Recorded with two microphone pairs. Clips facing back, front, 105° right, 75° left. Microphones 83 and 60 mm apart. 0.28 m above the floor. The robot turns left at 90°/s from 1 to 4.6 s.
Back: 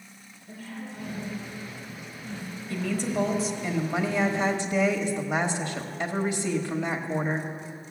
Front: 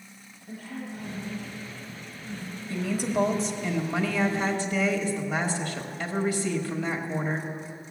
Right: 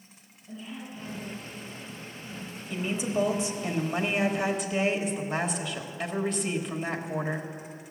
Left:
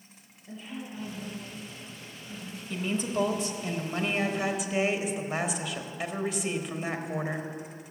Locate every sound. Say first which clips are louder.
0.5 s a woman speaking: front 2 dB, even; 30° left, 4.5 m; by 3.7 s 145° left, 4.5 m
2.7 s a woman speaking: front 1 dB, right 1 dB; 30° right, 1.1 m; by 7.5 s 155° left, 1.1 m